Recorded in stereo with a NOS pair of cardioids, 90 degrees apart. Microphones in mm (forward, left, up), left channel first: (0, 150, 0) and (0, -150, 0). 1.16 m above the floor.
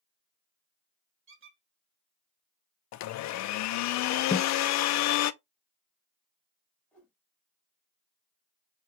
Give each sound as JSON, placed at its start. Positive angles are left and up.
{"t": 1.3, "sound": "a squeak", "azimuth_deg": -40, "distance_m": 1.5}
{"t": 2.9, "sound": "a blender", "azimuth_deg": 70, "distance_m": 0.5}
{"t": 4.3, "sound": "a snare drum", "azimuth_deg": 20, "distance_m": 1.5}
{"t": 6.9, "sound": "a whoosh", "azimuth_deg": 5, "distance_m": 1.7}